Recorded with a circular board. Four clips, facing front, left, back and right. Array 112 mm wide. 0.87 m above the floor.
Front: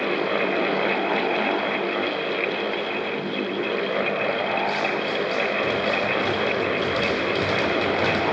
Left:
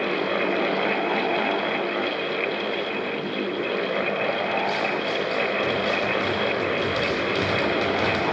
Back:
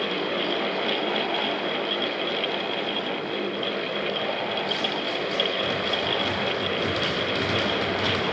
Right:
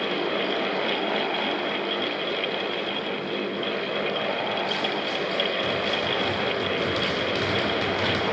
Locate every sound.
Only background noise.